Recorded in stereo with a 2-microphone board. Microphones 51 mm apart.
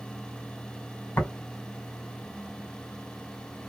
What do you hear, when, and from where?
1.2 s tapping: 50° left (ahead or behind), 2.5 m